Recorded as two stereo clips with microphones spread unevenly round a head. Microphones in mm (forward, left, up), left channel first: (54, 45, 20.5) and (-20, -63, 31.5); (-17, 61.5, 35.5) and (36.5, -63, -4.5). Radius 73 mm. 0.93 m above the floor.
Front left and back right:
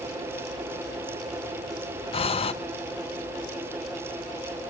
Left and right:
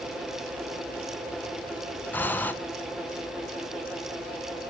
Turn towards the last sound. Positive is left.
turn(degrees=30)